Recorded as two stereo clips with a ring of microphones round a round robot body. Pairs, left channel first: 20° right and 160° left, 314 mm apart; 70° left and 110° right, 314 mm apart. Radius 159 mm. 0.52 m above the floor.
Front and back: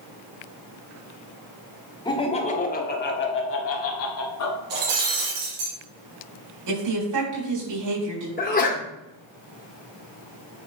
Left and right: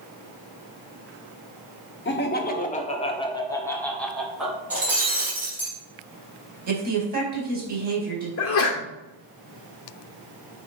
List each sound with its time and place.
2.0 s laughter: 45° left, 1.4 m; by 4.6 s 25° right, 1.8 m
4.7 s breaking glass: 160° left, 5 m
6.7 s a woman speaking: 175° right, 4 m
8.4 s a sneeze: 35° left, 2.0 m